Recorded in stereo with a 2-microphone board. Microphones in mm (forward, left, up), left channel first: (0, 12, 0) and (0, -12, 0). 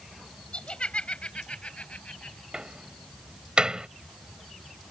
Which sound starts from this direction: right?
A door slam, at 2.5 s.